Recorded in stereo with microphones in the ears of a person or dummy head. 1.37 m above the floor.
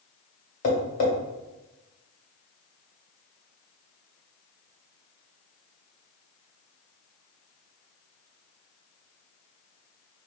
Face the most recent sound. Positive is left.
turn(degrees=45)  # may be behind; listen again after turning